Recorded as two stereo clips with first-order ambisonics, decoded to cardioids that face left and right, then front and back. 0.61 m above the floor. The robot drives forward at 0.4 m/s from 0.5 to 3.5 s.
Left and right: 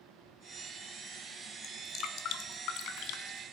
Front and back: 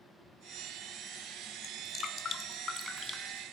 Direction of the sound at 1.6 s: 45° left.